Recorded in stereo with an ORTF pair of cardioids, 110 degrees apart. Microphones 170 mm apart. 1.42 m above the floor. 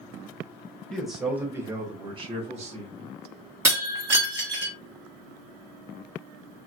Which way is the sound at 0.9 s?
5° left.